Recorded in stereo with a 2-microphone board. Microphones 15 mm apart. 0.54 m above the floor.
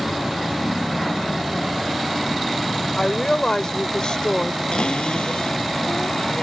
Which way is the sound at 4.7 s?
85° left.